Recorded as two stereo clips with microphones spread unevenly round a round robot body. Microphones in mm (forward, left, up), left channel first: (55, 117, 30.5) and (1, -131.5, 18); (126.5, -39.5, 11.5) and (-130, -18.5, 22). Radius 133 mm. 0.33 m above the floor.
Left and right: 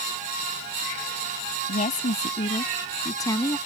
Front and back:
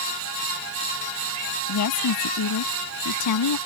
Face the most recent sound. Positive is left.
turn(degrees=0)